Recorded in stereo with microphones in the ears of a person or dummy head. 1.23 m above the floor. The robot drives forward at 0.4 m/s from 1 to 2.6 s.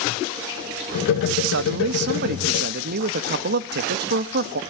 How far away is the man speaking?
About 1.2 m.